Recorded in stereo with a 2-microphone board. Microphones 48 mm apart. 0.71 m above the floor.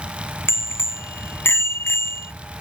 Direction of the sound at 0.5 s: 60° left (ahead or behind).